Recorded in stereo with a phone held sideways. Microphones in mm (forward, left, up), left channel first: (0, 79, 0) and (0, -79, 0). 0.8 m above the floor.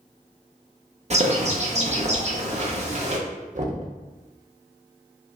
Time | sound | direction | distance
1.1 | a bird | 45° right (ahead or behind) | 0.7 m
3.5 | knocking | 55° right (ahead or behind) | 0.8 m